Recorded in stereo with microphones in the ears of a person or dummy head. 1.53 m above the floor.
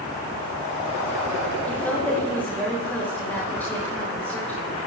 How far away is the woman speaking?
About 7 m.